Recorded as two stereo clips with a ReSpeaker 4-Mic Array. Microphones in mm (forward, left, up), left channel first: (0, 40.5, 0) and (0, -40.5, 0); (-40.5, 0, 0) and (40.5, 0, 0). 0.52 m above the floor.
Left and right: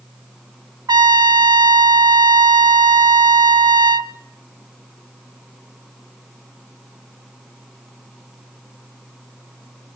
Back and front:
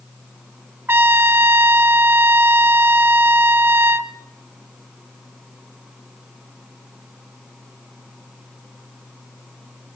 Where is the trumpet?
60° right, 0.7 m.